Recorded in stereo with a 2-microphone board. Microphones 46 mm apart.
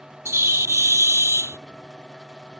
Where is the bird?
85° right.